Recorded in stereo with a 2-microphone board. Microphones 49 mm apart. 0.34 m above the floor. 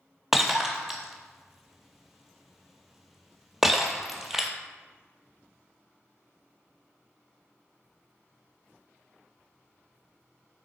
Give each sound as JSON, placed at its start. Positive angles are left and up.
{"t": 0.3, "sound": "breaking glass", "side_deg": -5, "distance_m": 0.6}